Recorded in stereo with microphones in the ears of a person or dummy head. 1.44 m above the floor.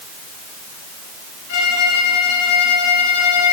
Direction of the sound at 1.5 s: 60° left (ahead or behind).